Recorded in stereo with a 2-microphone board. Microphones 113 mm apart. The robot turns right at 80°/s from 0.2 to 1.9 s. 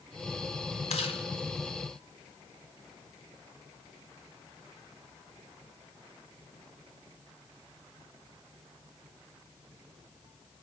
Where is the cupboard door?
No cupboard door in this recording.